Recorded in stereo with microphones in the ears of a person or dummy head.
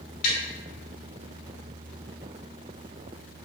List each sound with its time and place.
0.2 s tapping: 45° left (ahead or behind), 1.4 m